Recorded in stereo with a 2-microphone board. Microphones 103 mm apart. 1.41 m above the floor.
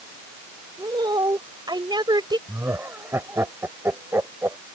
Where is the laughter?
25° right (ahead or behind).